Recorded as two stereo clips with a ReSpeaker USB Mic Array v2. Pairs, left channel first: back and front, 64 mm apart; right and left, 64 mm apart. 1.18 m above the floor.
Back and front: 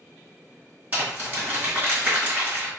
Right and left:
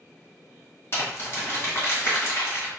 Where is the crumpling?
55° right, 1.6 m.